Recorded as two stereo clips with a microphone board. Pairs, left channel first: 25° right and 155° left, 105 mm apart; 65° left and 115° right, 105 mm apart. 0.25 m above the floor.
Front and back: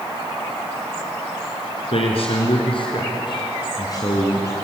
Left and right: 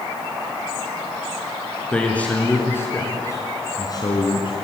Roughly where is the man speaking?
Ahead.